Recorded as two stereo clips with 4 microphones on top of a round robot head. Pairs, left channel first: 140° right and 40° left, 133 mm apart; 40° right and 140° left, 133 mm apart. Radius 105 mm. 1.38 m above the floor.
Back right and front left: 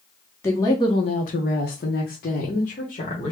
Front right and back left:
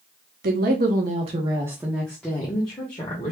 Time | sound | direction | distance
0.4 | a woman speaking | 150° left | 0.8 m